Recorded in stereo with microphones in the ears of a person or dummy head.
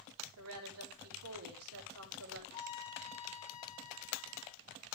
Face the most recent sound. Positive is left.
turn(degrees=15)  # may be behind; listen again after turning